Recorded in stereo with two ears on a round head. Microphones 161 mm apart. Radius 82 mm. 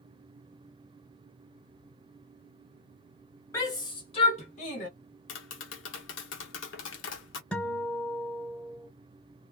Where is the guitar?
5° left (ahead or behind), 1.2 m.